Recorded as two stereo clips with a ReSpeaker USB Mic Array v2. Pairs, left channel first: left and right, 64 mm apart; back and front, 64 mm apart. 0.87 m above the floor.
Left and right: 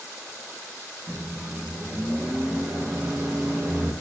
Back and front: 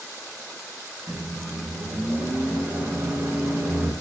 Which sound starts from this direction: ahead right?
A microwave, at 1.1 s.